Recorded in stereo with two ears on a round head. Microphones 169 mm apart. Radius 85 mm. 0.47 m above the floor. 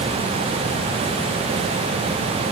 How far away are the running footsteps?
I don't hear running footsteps.